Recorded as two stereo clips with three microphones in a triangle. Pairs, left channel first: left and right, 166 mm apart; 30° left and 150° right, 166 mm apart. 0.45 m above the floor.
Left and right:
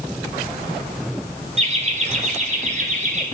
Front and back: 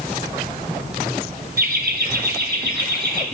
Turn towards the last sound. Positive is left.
turn(degrees=-130)